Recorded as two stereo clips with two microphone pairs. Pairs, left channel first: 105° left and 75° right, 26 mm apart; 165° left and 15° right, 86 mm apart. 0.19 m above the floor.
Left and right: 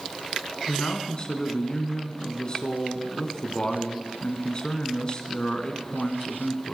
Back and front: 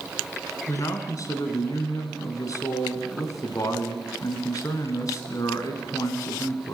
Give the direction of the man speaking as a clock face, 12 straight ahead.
7 o'clock.